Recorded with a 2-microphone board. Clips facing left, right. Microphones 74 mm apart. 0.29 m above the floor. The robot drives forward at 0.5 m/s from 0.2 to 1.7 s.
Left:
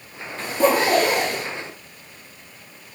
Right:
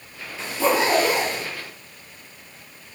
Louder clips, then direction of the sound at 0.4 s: Left 2 dB; 45° left (ahead or behind).